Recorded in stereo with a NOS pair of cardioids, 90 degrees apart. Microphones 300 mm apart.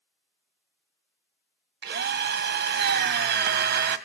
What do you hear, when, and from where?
1.8 s a drill: 40° right, 1.7 m